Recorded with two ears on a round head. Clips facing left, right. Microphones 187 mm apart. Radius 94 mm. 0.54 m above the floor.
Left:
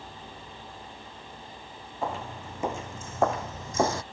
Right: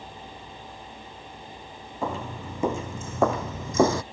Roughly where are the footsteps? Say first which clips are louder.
Right 2 dB; right.